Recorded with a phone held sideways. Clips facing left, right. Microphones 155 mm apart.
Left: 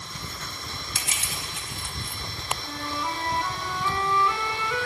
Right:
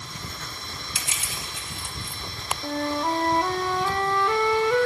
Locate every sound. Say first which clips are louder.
0.9 s crushing: even; 70° left (ahead or behind), 2.5 m
2.6 s a flute: right 9 dB; 50° right (ahead or behind), 0.7 m